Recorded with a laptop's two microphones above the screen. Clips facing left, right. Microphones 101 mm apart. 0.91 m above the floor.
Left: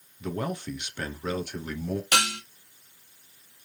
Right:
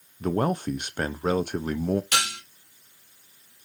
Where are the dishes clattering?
60° left (ahead or behind), 0.9 m.